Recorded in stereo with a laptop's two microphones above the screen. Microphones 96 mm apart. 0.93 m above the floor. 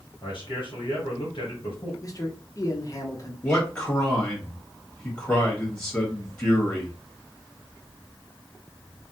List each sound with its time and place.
0.2 s a man speaking: 60° left (ahead or behind), 1.1 m
2.0 s a man speaking: 35° left (ahead or behind), 0.7 m
3.4 s a man speaking: 25° left (ahead or behind), 1.5 m